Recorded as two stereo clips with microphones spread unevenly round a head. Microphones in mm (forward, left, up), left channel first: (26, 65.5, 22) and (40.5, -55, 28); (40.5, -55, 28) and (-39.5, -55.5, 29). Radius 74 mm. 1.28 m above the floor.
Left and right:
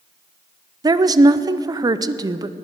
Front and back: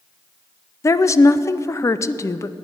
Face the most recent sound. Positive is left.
turn(degrees=-30)